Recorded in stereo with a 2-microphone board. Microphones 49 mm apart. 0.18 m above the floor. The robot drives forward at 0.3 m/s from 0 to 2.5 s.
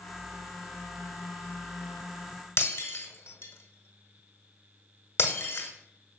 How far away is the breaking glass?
About 1.2 m.